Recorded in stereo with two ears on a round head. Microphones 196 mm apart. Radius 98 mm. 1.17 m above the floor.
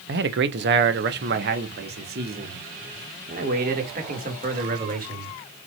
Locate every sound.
0.1 s a man speaking: 55° right (ahead or behind), 1.1 m; by 5.3 s 40° right (ahead or behind), 3.5 m